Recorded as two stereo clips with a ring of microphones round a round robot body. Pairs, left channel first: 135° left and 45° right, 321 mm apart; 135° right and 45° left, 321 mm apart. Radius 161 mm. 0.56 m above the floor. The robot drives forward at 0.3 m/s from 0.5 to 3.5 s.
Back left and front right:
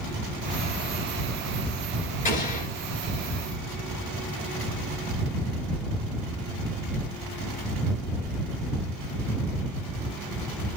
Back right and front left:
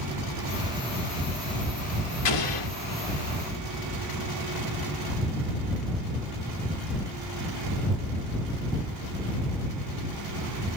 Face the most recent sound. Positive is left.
turn(degrees=-165)